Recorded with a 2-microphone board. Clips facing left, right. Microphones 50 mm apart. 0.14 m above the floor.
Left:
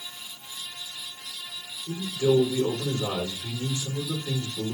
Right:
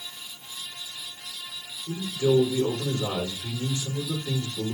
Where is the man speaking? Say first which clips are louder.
Even; 20° left (ahead or behind), 3 m.